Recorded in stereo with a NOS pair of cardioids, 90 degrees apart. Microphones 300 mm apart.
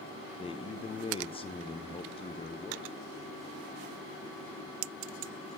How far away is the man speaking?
About 0.7 m.